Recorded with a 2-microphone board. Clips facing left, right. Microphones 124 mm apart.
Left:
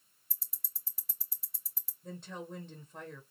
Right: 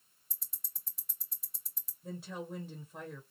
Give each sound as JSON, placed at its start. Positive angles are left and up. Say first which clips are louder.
{"t": 0.3, "sound": "ticking", "louder": "even", "side_deg": 5, "distance_m": 0.7}
{"t": 2.0, "sound": "a woman speaking", "louder": "right 2 dB", "side_deg": -5, "distance_m": 1.2}